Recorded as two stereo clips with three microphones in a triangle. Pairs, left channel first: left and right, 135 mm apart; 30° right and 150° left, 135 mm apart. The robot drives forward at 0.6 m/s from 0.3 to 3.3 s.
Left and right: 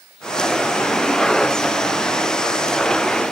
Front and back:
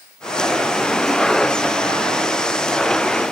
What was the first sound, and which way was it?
Only background noise.